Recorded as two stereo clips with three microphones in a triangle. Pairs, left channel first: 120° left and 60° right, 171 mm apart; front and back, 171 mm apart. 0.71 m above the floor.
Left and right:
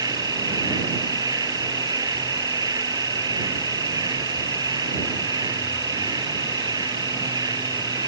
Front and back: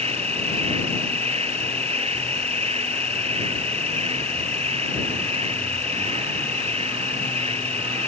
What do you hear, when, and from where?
0.0 s an insect: 125° right